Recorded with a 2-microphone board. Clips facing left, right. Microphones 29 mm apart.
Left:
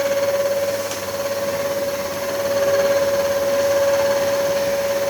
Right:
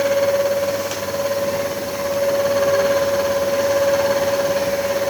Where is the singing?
No singing in this recording.